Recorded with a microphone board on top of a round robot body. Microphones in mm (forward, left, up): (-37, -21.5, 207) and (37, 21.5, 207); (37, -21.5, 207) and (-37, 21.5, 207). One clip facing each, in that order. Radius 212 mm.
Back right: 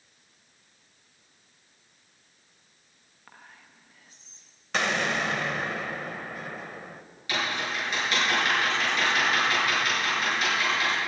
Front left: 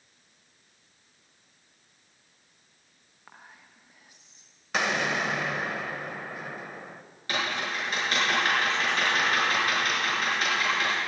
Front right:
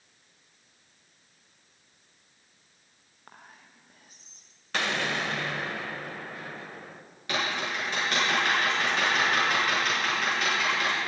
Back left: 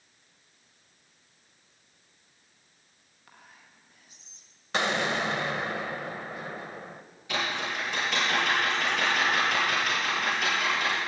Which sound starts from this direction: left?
An explosion, at 4.7 s.